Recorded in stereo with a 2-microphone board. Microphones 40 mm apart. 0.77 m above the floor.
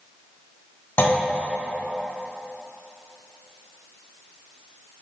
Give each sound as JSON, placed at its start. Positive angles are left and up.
{"t": 1.0, "sound": "a clunk", "side_deg": 60, "distance_m": 0.8}